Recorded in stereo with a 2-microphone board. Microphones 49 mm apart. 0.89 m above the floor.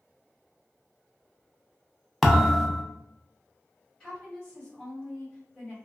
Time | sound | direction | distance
2.2 | a thud | 5° left (ahead or behind) | 0.5 m
4.0 | a woman speaking | 20° left (ahead or behind) | 1.4 m